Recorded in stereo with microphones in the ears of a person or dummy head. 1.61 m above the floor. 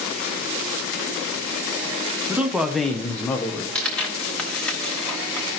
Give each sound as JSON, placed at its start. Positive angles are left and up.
{"t": 2.3, "sound": "a man speaking", "side_deg": -5, "distance_m": 0.8}
{"t": 3.8, "sound": "tearing paper", "side_deg": 10, "distance_m": 1.2}